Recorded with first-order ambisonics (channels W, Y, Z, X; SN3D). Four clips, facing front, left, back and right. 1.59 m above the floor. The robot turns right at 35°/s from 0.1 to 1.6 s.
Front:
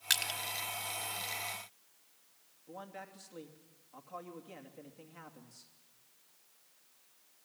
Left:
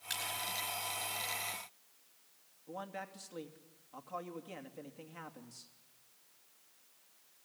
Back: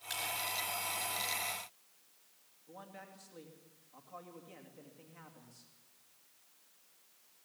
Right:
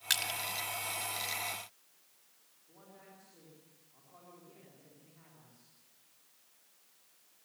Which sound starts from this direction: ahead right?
Crushing, at 0.1 s.